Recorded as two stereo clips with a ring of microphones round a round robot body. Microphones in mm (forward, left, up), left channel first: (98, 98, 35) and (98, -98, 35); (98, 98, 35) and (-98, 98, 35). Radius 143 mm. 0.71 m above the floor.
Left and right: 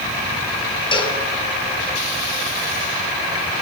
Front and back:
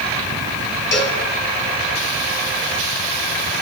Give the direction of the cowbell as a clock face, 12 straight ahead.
11 o'clock.